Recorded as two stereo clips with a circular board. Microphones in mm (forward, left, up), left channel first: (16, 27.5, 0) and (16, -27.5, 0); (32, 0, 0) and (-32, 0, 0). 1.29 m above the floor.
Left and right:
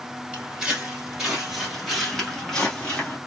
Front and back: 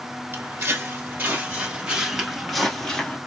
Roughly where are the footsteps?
Behind.